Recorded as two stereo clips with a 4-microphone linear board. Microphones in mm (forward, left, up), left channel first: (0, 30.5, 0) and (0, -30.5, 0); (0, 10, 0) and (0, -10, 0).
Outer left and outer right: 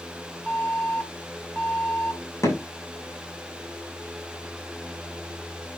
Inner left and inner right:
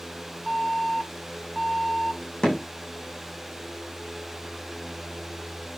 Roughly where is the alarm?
Left.